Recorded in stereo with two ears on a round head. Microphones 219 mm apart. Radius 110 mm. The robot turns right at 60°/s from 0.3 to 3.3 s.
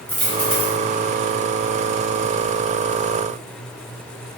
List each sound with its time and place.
0.1 s a dropped coin: 5° left (ahead or behind), 1.1 m; by 0.8 s 15° left (ahead or behind), 1.1 m